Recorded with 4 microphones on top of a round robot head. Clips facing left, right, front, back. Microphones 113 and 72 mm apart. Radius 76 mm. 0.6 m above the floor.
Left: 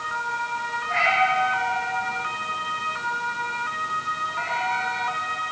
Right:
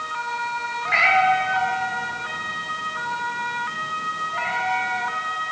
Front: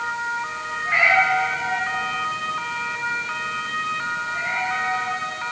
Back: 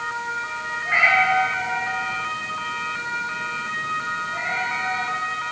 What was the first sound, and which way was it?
A cat meowing, 100° right.